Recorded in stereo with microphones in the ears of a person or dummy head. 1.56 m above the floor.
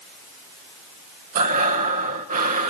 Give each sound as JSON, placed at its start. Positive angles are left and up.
{"t": 1.4, "sound": "breathing", "side_deg": -40, "distance_m": 0.8}